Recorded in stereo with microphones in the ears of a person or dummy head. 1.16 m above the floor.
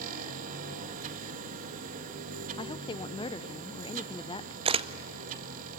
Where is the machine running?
45° right (ahead or behind), 1.5 m.